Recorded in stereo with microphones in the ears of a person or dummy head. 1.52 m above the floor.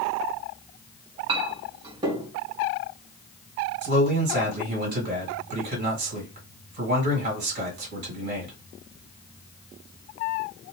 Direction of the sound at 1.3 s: 30° right (ahead or behind).